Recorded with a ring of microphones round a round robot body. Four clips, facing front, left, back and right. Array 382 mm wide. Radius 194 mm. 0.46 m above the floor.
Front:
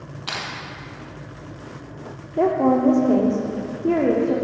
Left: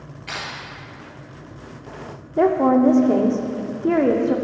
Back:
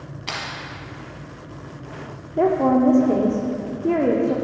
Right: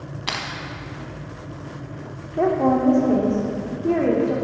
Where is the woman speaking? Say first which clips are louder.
Left 3 dB, back 1 dB; 95° left, 0.8 m.